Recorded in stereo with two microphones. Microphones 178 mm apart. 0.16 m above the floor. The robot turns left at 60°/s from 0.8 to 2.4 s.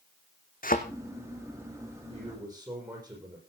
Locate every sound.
0.6 s a thud: 55° left (ahead or behind), 1.5 m
2.1 s a man speaking: 40° right (ahead or behind), 7 m; by 3.4 s 20° right (ahead or behind), 7 m